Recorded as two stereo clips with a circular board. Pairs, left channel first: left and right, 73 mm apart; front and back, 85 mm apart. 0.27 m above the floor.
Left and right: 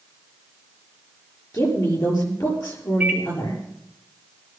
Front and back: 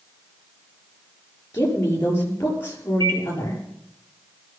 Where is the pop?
I don't hear a pop.